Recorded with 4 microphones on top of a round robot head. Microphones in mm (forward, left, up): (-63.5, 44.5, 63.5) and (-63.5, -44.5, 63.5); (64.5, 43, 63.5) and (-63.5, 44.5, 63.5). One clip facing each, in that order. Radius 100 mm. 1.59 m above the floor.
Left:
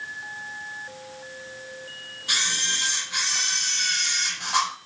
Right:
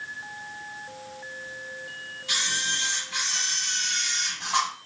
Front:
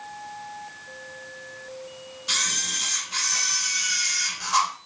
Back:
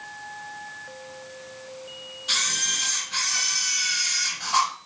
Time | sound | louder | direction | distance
2.3 | a camera shutter | left 1 dB, back 1 dB | 30° left | 1.8 m